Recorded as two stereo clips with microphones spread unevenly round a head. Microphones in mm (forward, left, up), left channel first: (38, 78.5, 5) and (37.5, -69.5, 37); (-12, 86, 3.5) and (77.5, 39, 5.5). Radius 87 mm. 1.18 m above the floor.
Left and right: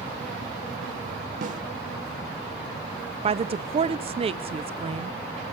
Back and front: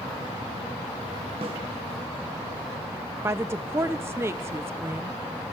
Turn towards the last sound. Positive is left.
turn(degrees=-65)